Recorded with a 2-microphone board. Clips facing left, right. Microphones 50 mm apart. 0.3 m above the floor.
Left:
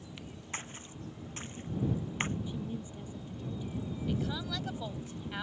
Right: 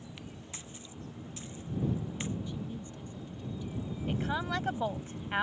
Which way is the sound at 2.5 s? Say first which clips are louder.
Left 1 dB; 15° left (ahead or behind).